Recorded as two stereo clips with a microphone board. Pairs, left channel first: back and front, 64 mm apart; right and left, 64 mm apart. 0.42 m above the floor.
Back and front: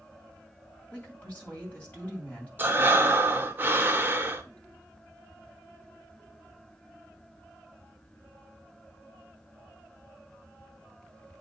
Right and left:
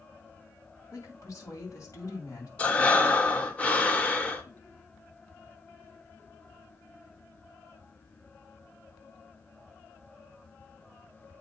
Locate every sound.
0.9 s a woman speaking: 115° right, 2.5 m
2.6 s breathing: 35° right, 0.8 m